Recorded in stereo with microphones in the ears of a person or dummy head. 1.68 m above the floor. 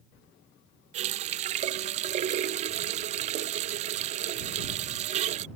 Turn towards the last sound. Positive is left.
turn(degrees=-40)  # may be behind; listen again after turning